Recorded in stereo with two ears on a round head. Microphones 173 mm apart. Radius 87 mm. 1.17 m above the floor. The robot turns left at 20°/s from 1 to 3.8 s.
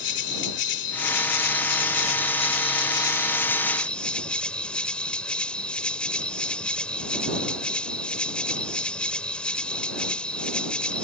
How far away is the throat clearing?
I don't hear throat clearing.